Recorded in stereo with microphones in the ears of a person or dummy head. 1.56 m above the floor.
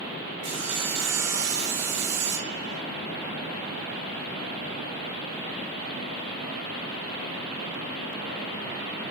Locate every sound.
0.4 s sawing: 85° right, 1.6 m